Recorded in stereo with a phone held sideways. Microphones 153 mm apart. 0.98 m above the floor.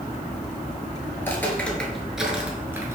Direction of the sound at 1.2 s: 15° left (ahead or behind).